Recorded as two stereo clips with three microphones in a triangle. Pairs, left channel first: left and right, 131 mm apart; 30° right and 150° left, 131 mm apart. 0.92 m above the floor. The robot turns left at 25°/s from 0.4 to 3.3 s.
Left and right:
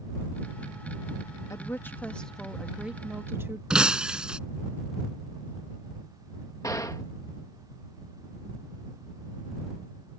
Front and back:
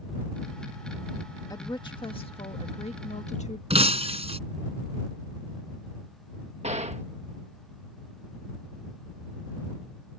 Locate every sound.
1.5 s a woman speaking: 25° left; by 3.6 s 20° right
3.7 s breaking glass: 175° right
6.6 s a gunshot: 150° left